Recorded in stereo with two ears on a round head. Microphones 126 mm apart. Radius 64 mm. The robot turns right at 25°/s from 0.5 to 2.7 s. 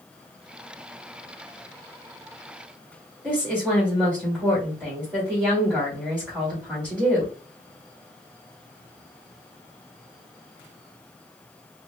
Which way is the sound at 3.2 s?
5° right (ahead or behind).